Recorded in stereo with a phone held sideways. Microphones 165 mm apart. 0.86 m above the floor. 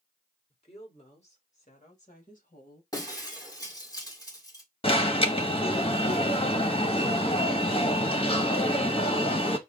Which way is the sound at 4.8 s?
35° left (ahead or behind).